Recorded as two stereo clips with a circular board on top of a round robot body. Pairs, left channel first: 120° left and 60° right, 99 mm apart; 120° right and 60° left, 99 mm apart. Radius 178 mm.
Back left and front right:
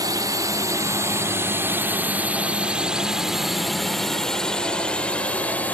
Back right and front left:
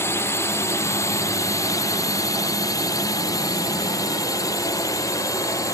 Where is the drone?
70° right; by 5.8 s 170° right.